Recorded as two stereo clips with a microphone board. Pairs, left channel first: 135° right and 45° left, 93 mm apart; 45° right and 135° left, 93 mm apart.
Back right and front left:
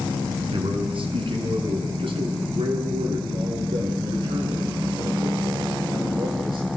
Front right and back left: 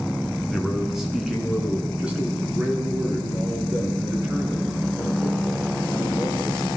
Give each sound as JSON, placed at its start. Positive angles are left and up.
{"t": 0.5, "sound": "a man speaking", "azimuth_deg": 45, "distance_m": 4.0}